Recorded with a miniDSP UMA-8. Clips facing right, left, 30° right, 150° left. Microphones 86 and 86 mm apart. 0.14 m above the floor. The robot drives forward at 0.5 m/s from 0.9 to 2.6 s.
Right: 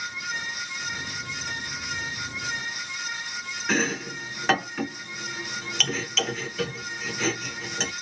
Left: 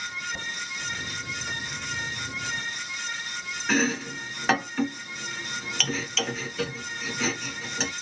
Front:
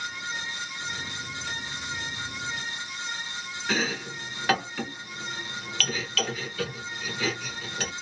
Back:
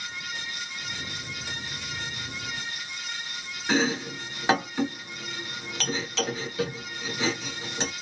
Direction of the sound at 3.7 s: Straight behind.